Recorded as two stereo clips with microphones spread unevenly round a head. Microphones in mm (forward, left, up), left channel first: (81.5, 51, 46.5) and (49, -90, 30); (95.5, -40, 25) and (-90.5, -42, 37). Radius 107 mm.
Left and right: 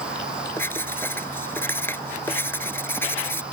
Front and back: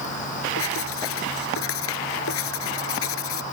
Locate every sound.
0.6 s writing: 5° left